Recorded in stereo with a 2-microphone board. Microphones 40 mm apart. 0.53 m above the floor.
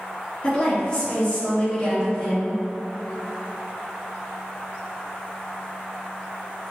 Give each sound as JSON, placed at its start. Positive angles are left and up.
{"t": 0.4, "sound": "a woman speaking", "side_deg": 25, "distance_m": 1.0}